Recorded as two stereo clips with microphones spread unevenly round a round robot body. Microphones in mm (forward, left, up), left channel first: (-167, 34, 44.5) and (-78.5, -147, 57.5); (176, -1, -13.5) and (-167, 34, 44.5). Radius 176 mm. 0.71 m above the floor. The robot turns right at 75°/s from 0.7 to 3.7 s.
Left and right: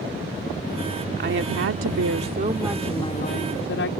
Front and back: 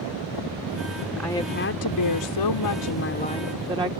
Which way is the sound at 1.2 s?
95° right.